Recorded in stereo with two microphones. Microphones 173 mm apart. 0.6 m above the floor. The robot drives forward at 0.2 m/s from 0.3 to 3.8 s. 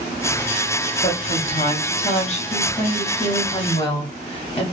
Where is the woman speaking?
45° left (ahead or behind), 0.9 m; by 4.6 s 35° left (ahead or behind), 1.1 m.